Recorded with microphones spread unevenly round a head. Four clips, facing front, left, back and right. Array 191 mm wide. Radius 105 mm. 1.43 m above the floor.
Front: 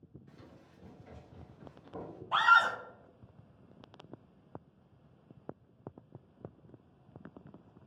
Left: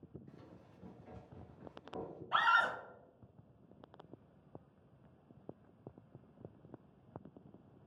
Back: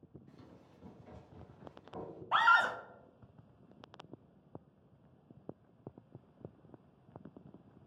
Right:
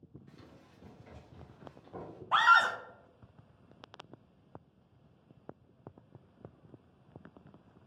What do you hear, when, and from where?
0.3 s running footsteps: 25° left, 1.4 m; by 2.2 s 110° right, 1.7 m
2.3 s a scream: 140° right, 0.7 m